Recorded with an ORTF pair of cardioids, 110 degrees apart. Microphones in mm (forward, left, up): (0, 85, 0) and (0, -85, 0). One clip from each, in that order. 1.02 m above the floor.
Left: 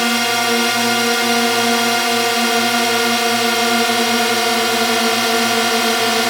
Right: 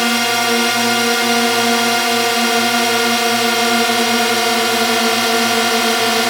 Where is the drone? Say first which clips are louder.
Right 1 dB; 5° right.